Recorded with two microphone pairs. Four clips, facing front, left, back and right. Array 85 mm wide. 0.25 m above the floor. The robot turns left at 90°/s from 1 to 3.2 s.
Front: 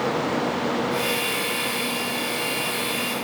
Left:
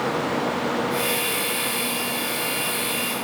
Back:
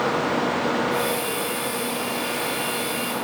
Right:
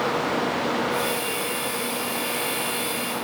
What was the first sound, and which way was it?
Only background noise.